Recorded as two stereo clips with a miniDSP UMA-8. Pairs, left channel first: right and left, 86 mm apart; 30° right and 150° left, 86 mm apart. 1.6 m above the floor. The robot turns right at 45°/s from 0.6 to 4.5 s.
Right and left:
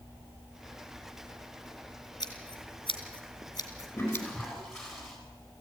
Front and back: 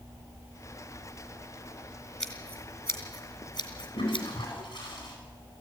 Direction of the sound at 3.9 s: 20° right.